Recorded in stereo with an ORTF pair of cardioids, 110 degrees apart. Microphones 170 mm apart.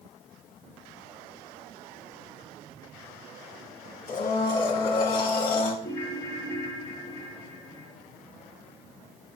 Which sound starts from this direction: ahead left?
A blender, at 4.1 s.